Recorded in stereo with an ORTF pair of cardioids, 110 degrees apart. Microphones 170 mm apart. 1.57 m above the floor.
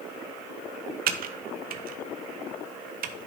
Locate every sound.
1.1 s typing on a keyboard: 60° right, 0.8 m